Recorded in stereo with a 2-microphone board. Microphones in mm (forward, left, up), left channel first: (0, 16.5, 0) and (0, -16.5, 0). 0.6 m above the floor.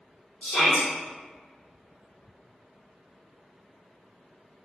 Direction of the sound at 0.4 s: 35° left (ahead or behind).